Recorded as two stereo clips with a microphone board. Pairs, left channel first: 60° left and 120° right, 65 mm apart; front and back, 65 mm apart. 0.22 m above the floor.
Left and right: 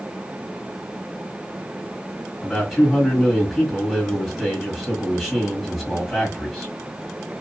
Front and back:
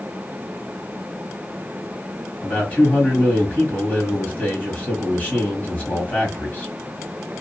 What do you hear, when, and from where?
2.4 s a man speaking: 35° right, 1.5 m